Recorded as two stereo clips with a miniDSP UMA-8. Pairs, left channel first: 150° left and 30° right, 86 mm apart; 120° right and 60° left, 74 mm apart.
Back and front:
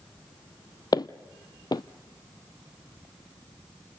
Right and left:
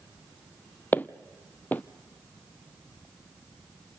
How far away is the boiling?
No boiling in this recording.